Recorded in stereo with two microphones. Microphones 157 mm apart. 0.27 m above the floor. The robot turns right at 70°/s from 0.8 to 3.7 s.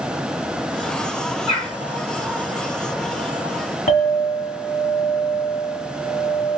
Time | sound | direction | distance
1.5 | a bird | 25° left (ahead or behind) | 1.6 m
3.9 | a clink | 60° left (ahead or behind) | 0.9 m